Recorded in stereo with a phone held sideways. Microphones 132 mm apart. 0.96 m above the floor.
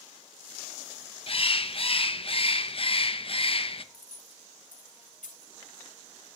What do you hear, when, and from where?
1.3 s a bird: 45° left (ahead or behind), 0.9 m
3.9 s keys jangling: 90° left, 7 m